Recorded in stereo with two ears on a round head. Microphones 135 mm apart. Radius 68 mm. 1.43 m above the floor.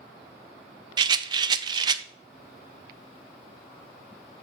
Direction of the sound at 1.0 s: 30° right (ahead or behind).